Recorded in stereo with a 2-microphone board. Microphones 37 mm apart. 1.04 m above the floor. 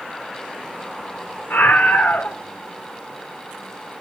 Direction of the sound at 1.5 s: 70° left (ahead or behind).